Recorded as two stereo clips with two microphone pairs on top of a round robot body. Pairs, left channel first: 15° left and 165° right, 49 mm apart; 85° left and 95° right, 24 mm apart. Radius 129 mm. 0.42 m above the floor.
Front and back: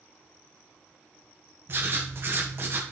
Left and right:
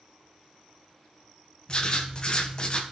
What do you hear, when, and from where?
1.7 s writing: 150° left, 1.1 m